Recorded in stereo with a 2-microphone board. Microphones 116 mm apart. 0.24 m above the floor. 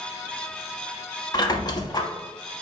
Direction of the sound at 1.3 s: 35° left (ahead or behind).